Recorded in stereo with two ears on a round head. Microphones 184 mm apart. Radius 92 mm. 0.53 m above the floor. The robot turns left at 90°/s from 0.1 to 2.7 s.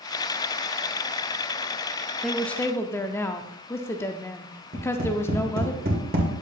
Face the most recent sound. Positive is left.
turn(degrees=-45)  # may be behind; listen again after turning